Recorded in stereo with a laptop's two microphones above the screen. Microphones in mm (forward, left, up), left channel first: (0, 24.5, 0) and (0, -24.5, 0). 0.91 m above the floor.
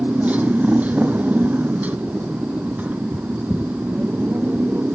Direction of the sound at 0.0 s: 30° right (ahead or behind).